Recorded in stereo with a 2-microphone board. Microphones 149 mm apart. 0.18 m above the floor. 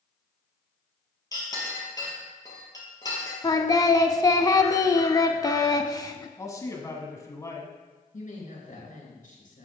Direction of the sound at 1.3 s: 25° left (ahead or behind).